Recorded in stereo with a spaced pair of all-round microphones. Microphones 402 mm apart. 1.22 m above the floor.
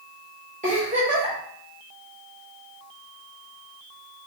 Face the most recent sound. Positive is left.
turn(degrees=-20)  # may be behind; listen again after turning